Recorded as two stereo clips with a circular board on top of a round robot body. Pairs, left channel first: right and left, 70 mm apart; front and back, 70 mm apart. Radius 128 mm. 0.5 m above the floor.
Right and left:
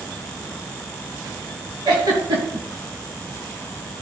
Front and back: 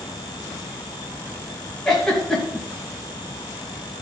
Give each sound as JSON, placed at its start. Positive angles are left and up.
{"t": 1.9, "sound": "a giggle", "azimuth_deg": 85, "distance_m": 3.0}